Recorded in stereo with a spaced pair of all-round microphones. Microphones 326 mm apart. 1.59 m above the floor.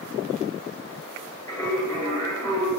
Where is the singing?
10° left (ahead or behind), 1.2 m.